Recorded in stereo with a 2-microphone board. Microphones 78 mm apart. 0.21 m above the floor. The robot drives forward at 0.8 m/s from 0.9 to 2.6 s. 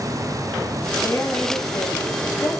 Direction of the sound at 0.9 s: 20° left (ahead or behind).